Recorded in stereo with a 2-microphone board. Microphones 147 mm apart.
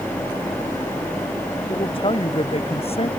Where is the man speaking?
35° left (ahead or behind); by 3.1 s 40° left (ahead or behind).